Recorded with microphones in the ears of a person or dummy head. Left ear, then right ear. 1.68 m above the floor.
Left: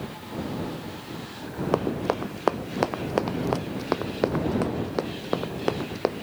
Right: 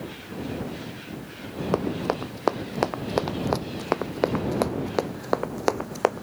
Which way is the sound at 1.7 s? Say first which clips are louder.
Left 1 dB; 5° left (ahead or behind).